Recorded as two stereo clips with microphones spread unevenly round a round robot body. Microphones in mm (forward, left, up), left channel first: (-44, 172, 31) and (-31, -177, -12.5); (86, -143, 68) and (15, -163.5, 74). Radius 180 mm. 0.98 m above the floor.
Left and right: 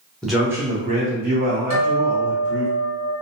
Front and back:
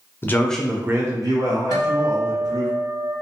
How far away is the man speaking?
About 0.5 m.